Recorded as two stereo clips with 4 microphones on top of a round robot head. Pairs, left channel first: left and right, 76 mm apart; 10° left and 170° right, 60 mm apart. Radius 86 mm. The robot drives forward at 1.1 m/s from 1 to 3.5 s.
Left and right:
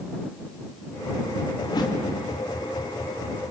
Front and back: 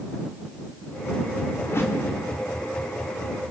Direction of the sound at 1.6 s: 55° left.